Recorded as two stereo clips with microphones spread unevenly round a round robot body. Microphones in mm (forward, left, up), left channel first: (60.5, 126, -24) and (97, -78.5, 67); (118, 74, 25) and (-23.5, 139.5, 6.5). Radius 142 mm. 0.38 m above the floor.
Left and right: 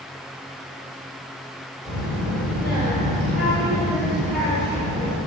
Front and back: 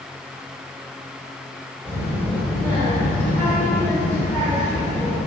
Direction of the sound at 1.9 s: 55° left.